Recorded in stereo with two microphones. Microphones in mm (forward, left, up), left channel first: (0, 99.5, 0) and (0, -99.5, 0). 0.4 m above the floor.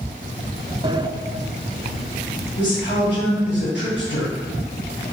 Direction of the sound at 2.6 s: 60° left (ahead or behind).